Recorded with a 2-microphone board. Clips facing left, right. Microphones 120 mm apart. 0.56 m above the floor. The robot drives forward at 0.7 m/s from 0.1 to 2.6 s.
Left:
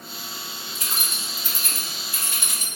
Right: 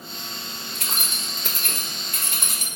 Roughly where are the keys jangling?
Right.